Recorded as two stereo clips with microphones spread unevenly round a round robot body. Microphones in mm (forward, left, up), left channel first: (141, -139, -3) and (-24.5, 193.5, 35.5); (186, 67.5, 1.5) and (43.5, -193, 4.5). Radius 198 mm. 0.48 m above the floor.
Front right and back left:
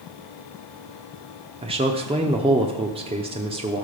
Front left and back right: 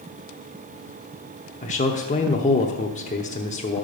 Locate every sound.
1.6 s a man speaking: 50° left, 0.8 m